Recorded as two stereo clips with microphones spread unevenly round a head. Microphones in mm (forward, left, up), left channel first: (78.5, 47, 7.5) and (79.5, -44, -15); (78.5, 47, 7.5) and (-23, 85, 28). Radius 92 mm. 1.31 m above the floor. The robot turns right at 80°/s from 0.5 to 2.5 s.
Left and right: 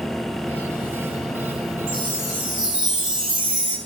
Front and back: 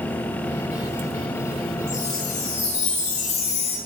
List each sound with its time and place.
1.9 s a chime: 60° right, 5 m; by 3.8 s 10° right, 5 m